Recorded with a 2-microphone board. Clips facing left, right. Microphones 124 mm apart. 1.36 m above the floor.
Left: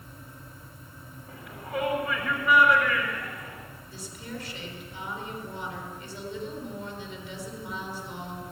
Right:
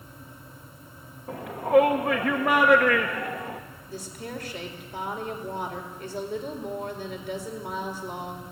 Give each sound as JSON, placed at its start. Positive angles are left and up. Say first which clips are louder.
{"t": 1.3, "sound": "a shout", "louder": "right 15 dB", "side_deg": -70, "distance_m": 1.4}
{"t": 3.9, "sound": "a woman speaking", "louder": "right 4 dB", "side_deg": -50, "distance_m": 4.0}